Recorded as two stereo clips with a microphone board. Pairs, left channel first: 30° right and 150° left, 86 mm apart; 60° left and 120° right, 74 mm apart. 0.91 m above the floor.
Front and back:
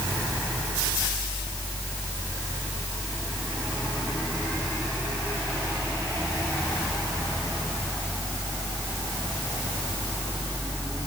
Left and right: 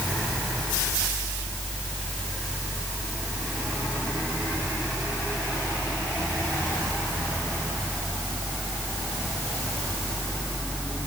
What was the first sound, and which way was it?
Only background noise.